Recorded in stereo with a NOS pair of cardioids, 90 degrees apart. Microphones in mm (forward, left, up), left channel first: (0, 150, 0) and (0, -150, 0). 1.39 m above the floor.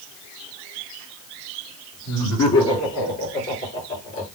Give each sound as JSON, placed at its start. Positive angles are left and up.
{"t": 2.1, "sound": "laughter", "azimuth_deg": 65, "distance_m": 6.0}